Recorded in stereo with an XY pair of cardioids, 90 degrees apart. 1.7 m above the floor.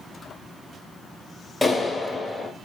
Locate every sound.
1.6 s a clap: 10° left, 1.2 m